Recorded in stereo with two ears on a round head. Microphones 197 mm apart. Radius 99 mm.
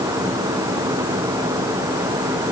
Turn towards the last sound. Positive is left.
No sound to turn to.